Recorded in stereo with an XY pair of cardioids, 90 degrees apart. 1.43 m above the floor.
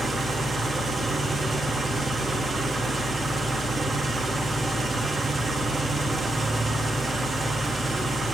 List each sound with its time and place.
0.0 s an engine running: 35° right, 1.8 m